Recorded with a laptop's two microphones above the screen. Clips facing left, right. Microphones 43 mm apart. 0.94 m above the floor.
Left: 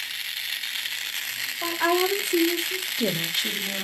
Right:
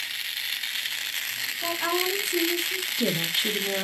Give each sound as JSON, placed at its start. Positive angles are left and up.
{"t": 1.6, "sound": "a woman speaking", "side_deg": 55, "distance_m": 1.0}